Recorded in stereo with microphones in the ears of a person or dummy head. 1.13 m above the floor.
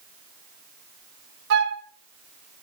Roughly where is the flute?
Right.